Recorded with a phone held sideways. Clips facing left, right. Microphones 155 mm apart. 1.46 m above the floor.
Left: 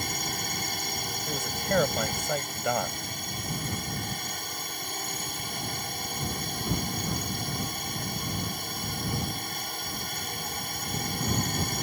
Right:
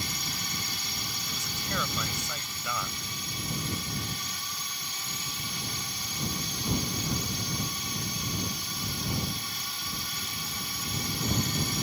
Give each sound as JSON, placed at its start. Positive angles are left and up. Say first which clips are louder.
{"t": 0.0, "sound": "a drone", "louder": "left 4 dB", "side_deg": 50}
{"t": 1.3, "sound": "a man speaking", "louder": "left 9 dB", "side_deg": 55}